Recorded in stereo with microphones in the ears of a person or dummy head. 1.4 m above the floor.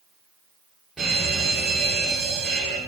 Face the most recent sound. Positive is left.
turn(degrees=-5)  # may be behind; listen again after turning